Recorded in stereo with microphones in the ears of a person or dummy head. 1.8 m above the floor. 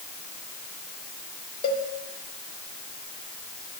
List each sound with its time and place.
1.6 s a cowbell: 35° left (ahead or behind), 1.0 m